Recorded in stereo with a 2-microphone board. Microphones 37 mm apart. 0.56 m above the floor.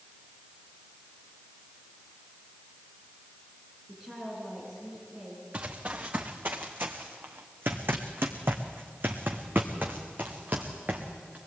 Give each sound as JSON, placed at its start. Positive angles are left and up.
{"t": 3.9, "sound": "a woman speaking", "side_deg": -15, "distance_m": 7.5}
{"t": 5.5, "sound": "running footsteps", "side_deg": -50, "distance_m": 2.5}